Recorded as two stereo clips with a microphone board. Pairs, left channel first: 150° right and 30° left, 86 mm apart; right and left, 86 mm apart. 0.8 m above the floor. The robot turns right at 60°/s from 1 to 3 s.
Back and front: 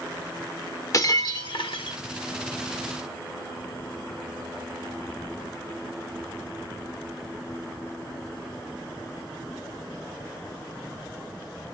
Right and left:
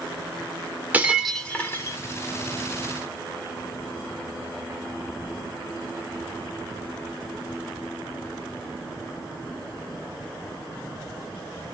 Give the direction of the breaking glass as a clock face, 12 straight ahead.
7 o'clock.